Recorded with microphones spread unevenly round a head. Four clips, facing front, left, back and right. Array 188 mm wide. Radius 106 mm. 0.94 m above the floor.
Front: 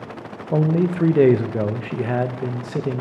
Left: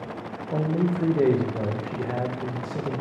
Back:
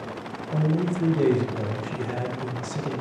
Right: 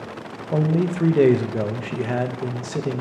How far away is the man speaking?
About 0.5 m.